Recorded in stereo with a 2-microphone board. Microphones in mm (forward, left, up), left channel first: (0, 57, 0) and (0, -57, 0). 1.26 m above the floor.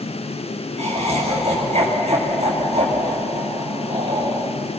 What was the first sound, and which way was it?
Laughter, 70° right (ahead or behind).